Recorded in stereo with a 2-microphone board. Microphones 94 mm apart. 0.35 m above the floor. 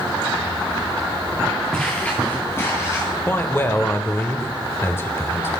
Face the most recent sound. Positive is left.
turn(degrees=25)  # may be behind; listen again after turning